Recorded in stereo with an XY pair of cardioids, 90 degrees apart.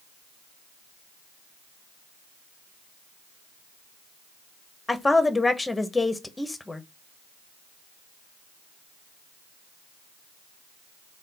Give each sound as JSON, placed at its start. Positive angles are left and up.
{"t": 4.9, "sound": "a woman speaking", "azimuth_deg": 15, "distance_m": 1.0}